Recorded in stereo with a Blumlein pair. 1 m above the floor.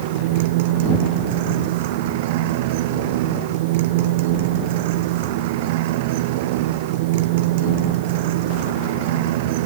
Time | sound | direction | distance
0.0 | a motorcycle | 50° right | ?